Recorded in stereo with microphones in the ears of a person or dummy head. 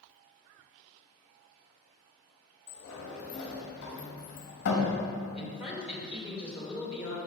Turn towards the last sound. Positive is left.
turn(degrees=-5)  # may be behind; listen again after turning